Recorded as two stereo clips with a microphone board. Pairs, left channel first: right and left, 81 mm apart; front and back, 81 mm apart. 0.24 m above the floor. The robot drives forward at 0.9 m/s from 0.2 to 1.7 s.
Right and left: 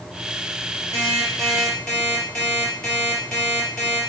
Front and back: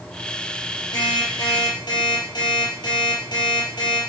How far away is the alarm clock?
About 4 m.